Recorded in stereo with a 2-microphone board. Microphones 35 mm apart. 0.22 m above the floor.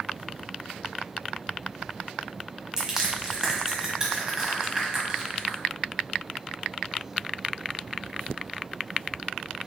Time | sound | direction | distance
2.8 | crushing | 20° right (ahead or behind) | 1.4 m